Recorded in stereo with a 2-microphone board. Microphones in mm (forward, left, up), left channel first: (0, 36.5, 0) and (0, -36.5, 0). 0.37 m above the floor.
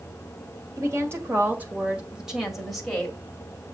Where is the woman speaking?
40° right (ahead or behind), 1.6 m; by 3.2 s 10° left (ahead or behind), 2 m.